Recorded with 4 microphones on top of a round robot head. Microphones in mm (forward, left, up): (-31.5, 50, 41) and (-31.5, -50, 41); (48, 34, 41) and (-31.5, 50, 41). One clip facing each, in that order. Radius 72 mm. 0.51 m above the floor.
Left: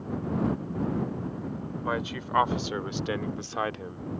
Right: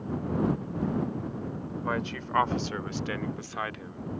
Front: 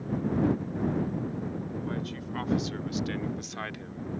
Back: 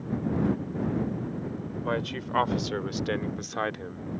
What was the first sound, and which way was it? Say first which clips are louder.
A man speaking: left 1 dB, back 4 dB; 170° left.